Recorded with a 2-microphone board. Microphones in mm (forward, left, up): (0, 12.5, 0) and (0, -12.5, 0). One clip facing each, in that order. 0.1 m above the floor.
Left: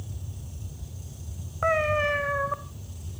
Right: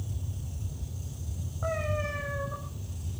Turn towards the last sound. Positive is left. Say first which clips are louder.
# left 9 dB
turn(degrees=65)  # may be behind; listen again after turning